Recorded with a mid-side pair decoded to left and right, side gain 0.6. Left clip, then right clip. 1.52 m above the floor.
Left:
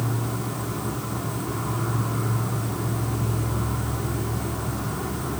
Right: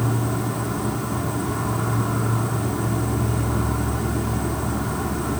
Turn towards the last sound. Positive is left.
turn(degrees=-30)